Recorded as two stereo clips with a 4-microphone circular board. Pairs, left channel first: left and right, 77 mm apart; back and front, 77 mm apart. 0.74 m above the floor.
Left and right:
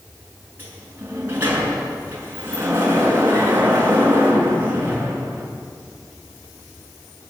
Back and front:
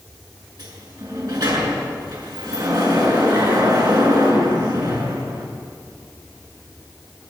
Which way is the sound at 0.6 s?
30° right.